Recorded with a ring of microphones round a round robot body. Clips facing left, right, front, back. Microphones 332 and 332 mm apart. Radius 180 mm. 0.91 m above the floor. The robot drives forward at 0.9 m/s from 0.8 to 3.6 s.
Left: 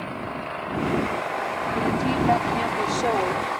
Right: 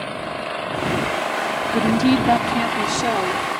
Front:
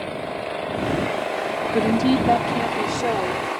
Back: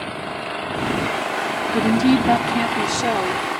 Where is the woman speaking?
105° right; by 3.4 s 140° right.